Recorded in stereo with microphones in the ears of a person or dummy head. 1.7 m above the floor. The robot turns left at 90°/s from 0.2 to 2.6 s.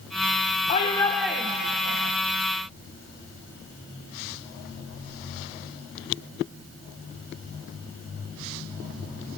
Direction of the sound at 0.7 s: 45° left.